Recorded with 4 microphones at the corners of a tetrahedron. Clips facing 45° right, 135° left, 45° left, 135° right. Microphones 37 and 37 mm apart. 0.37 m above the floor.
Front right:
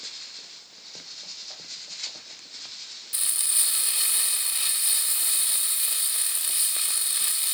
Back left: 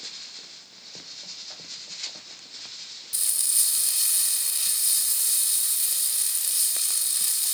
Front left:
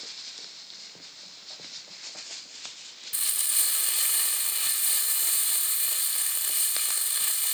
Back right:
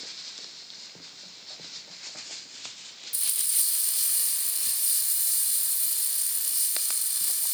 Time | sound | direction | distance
3.1 | frying | 15° left | 0.6 m